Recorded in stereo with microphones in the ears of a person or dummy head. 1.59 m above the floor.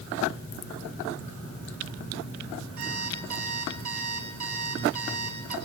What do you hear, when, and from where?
2.8 s an alarm clock: 45° right (ahead or behind), 4 m